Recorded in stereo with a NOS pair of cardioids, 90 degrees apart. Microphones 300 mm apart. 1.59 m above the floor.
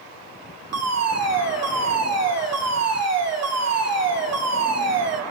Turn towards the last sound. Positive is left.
turn(degrees=-55)